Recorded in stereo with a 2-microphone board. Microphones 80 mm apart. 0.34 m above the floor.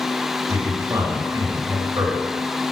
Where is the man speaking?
45° right (ahead or behind), 2 m.